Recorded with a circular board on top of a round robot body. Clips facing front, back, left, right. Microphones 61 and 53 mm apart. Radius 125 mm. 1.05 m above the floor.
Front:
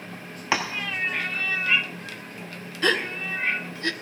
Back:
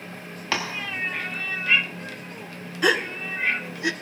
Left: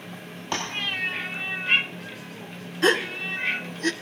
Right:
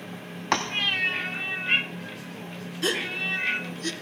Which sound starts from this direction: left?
A gasp, at 2.8 s.